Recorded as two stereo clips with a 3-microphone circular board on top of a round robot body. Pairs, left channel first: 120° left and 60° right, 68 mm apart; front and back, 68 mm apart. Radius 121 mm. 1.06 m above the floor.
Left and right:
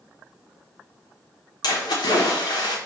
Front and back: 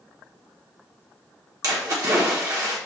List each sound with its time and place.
1.6 s a splash: 145° left, 1.0 m